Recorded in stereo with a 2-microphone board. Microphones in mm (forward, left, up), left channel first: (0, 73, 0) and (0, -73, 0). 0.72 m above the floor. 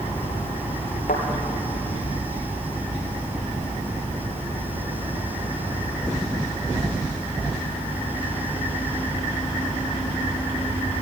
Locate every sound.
1.1 s a thud: 75° left (ahead or behind), 3.5 m